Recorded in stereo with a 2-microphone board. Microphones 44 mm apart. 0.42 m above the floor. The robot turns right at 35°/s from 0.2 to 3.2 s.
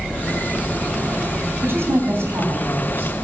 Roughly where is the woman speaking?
Behind right.